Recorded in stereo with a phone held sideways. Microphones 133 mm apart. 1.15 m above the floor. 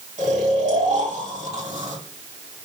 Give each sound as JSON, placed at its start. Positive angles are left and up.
{"t": 0.2, "sound": "snoring", "side_deg": -65, "distance_m": 2.5}